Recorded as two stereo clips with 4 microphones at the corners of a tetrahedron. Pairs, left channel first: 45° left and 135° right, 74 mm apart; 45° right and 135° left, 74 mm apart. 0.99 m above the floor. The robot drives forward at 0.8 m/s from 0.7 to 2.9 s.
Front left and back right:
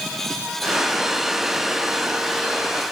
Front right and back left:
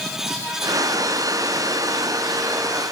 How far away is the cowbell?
I don't hear a cowbell.